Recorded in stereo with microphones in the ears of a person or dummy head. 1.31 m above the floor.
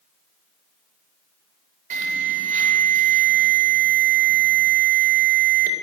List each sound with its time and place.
1.9 s an alarm: 40° right (ahead or behind), 4 m